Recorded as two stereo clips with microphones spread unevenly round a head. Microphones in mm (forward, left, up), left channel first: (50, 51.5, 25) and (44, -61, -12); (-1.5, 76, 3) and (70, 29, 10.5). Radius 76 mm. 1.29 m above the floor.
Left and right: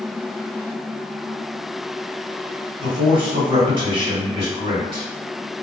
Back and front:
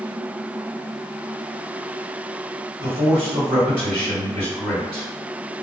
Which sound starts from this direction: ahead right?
A man speaking, at 2.8 s.